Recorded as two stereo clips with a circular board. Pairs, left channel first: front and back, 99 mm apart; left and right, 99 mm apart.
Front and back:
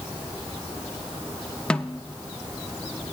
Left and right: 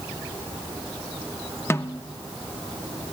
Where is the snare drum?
70° left, 0.5 m.